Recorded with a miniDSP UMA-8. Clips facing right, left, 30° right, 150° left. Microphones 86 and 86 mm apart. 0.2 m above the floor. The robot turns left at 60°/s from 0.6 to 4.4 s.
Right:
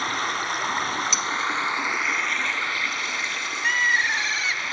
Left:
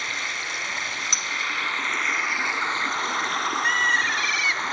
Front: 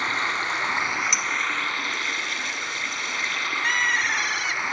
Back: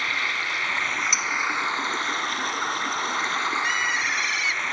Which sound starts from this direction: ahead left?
Cutlery clinking, at 1.1 s.